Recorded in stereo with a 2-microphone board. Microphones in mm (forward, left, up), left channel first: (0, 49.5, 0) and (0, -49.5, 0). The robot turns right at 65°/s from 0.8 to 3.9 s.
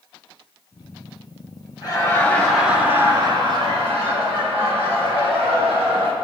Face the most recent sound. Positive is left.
turn(degrees=-90)